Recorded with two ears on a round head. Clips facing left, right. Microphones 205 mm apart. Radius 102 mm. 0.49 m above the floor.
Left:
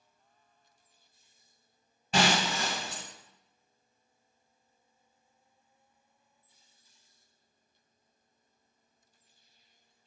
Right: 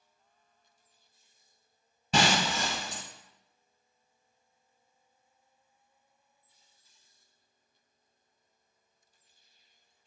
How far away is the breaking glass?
About 0.8 m.